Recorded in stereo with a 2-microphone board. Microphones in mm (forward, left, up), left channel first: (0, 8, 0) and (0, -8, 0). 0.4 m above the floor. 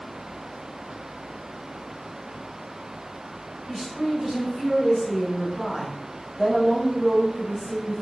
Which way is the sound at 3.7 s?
Centre (ahead or behind).